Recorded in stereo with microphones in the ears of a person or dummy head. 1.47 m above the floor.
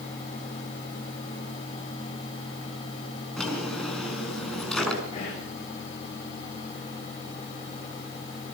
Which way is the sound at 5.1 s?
35° left (ahead or behind).